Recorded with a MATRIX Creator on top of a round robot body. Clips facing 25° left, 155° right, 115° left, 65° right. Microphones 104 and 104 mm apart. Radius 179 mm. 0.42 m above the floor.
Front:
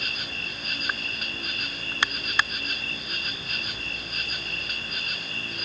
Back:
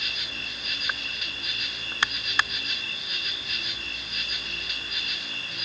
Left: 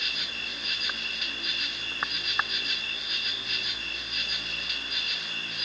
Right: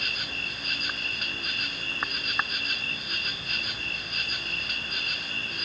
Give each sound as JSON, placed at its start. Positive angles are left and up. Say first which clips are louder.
{"t": 0.0, "sound": "an insect", "louder": "front 2 dB, right 3 dB", "azimuth_deg": -25}